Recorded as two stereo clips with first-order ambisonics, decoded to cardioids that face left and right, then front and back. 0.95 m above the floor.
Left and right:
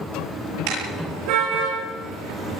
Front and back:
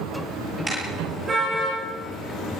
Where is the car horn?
105° right, 9 m; by 2.6 s 115° right, 8 m.